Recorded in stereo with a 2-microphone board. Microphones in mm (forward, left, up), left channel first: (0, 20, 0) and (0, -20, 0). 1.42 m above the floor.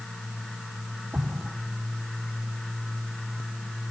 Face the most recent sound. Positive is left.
turn(degrees=-65)  # may be behind; listen again after turning